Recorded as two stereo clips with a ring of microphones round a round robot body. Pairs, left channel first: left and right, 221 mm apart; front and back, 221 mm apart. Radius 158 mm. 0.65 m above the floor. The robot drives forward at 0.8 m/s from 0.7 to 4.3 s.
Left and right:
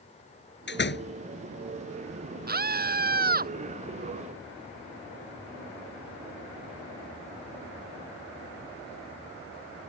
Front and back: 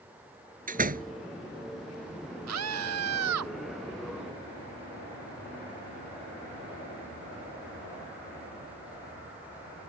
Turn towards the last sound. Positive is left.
turn(degrees=-140)